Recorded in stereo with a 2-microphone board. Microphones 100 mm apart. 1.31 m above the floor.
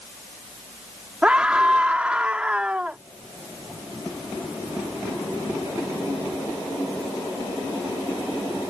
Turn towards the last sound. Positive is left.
turn(degrees=-10)  # may be behind; listen again after turning